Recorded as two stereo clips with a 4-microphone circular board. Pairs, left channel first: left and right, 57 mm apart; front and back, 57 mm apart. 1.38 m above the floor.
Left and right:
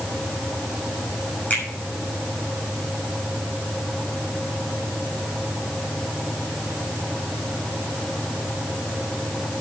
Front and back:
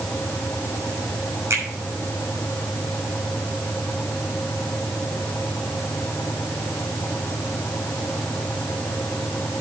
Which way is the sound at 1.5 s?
150° left.